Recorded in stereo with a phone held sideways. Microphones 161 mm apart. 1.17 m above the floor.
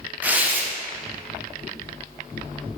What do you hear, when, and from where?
0.2 s tearing paper: 10° right (ahead or behind), 1.0 m